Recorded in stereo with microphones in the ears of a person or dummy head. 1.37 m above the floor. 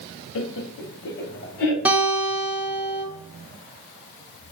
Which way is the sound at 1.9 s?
5° right (ahead or behind).